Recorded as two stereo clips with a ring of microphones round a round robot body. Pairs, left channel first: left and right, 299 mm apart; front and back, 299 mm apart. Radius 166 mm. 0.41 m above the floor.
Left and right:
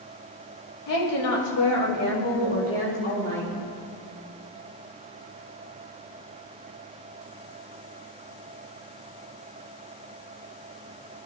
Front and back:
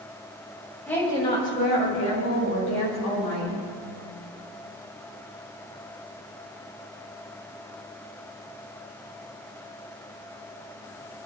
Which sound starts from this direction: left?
A woman speaking, at 0.9 s.